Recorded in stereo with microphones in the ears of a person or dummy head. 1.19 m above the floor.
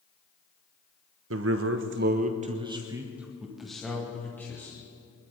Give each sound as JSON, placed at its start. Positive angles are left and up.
{"t": 1.3, "sound": "a man speaking", "side_deg": -70, "distance_m": 1.1}